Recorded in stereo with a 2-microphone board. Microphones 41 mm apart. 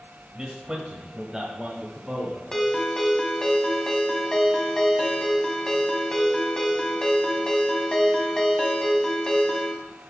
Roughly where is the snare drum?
No snare drum in this recording.